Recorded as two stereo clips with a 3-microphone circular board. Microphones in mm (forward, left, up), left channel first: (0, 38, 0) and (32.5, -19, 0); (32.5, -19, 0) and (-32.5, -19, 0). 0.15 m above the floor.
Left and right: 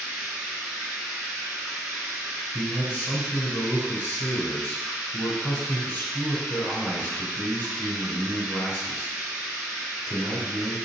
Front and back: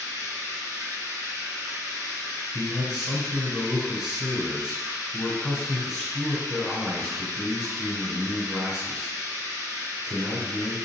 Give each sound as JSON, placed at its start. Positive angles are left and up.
{"t": 0.0, "sound": "running water", "azimuth_deg": -140, "distance_m": 1.6}
{"t": 2.5, "sound": "a man speaking", "azimuth_deg": 90, "distance_m": 1.5}